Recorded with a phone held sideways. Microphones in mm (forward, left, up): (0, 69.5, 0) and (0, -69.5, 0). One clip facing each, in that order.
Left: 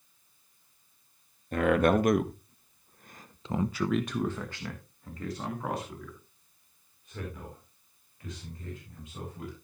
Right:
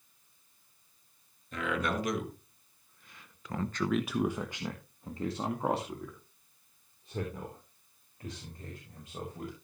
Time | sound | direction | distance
1.5 | a man speaking | 50° left (ahead or behind) | 1.7 m